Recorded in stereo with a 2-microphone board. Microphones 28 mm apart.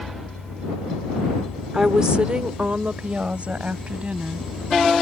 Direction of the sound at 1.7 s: 25° right (ahead or behind).